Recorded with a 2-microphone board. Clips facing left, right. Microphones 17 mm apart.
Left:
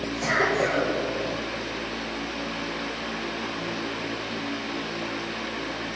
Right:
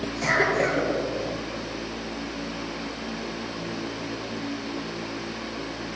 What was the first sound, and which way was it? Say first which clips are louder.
A cough: right 1 dB; 30° right (ahead or behind).